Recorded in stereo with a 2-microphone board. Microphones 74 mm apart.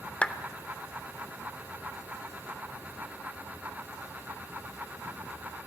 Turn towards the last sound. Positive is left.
turn(degrees=20)  # may be behind; listen again after turning